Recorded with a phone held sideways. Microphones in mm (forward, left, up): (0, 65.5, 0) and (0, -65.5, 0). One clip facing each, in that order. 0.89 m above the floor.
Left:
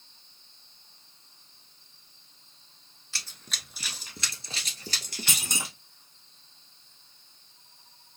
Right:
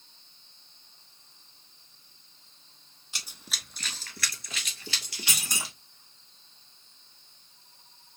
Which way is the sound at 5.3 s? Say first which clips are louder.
Left 1 dB; 25° left (ahead or behind).